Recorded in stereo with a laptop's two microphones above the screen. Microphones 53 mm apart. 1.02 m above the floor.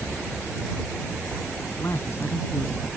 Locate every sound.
1.7 s a man speaking: 45° left (ahead or behind); by 2.9 s 50° left (ahead or behind)